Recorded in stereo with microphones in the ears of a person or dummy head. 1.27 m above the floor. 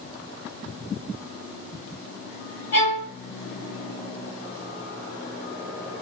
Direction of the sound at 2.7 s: 35° left (ahead or behind).